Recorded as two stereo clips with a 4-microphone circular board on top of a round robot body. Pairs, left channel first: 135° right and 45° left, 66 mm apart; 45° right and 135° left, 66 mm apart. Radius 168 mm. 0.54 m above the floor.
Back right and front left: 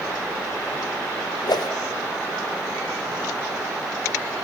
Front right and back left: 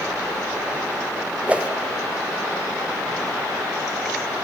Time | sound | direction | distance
1.5 | a whoosh | 155° right | 0.9 m